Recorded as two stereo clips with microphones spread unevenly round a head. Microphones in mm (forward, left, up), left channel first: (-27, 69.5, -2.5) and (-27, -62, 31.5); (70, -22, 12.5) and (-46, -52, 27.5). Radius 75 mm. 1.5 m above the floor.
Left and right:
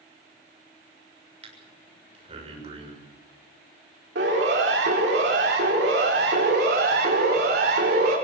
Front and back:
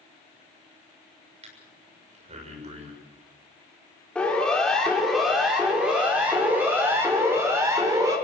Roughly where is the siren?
Right.